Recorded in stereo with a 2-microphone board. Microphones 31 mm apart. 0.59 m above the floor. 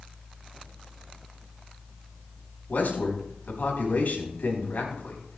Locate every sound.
2.7 s a man speaking: 70° left (ahead or behind), 4 m